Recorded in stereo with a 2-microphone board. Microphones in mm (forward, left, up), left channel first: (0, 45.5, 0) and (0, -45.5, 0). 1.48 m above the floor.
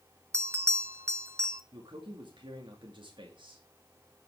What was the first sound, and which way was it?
A bell, 30° right (ahead or behind).